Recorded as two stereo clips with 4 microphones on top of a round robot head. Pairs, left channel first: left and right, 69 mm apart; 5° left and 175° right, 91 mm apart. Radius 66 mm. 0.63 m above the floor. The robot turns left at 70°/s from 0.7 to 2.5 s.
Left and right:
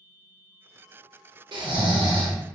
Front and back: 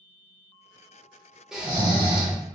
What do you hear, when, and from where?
1.5 s snoring: 90° right, 0.6 m; by 2.4 s 150° right, 0.6 m